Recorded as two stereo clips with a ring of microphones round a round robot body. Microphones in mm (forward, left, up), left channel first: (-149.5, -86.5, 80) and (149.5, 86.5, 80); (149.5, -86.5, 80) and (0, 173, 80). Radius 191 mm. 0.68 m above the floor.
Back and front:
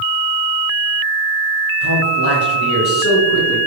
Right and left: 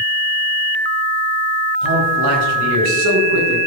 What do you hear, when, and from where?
1.8 s a man speaking: 155° left, 6.5 m; by 3.6 s 160° left, 8 m